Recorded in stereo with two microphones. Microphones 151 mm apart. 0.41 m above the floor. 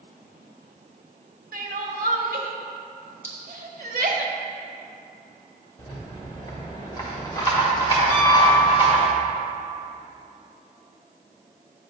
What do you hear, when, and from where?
1.5 s crying: 65° right (ahead or behind), 0.7 m
3.2 s a clink: 10° left (ahead or behind), 1.9 m
5.8 s a rattle: 25° left (ahead or behind), 1.3 m
8.1 s a piano: 15° left (ahead or behind), 1.6 m